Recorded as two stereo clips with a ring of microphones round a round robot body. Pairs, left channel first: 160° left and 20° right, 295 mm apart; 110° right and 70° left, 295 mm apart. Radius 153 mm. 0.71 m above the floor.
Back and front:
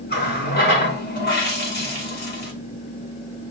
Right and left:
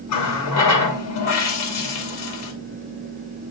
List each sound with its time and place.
0.1 s a running tap: 145° right, 2 m